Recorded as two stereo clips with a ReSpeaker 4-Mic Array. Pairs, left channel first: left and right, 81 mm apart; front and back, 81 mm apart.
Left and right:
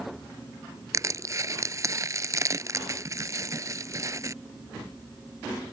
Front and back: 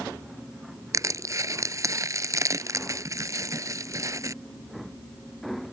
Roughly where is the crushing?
Behind right.